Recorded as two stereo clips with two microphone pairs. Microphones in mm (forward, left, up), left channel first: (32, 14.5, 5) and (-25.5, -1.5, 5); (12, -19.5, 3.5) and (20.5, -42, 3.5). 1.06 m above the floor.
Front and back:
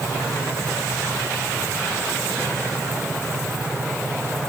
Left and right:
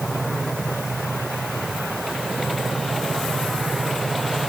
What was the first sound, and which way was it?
Only background noise.